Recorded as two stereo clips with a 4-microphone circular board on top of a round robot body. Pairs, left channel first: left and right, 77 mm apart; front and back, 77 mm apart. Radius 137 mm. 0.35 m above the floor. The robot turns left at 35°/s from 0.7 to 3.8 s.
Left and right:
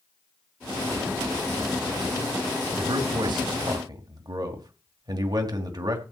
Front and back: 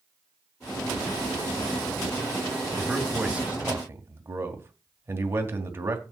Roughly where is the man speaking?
Right.